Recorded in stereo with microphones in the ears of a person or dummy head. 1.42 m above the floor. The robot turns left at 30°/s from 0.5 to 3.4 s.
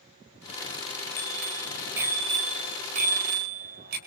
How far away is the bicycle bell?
About 5 m.